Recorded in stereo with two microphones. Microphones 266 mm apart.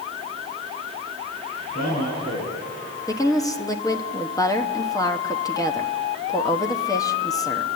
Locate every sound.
1.7 s a man speaking: 70° left (ahead or behind), 10 m
3.1 s a woman speaking: 10° left (ahead or behind), 1.1 m